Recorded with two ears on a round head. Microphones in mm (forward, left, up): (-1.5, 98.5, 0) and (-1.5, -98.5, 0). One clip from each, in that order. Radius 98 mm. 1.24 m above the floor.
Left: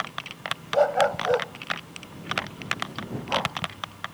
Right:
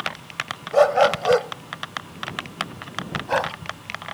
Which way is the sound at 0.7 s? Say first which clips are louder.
Right 5 dB; 50° right (ahead or behind).